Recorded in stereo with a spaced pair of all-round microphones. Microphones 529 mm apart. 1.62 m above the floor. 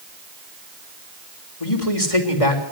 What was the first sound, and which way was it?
A man speaking, 85° left.